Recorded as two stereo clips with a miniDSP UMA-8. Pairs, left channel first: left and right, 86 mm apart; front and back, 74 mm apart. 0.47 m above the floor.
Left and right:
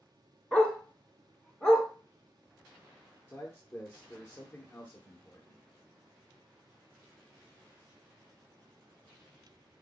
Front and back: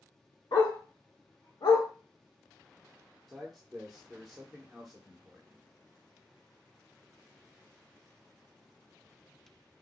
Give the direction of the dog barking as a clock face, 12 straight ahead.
12 o'clock.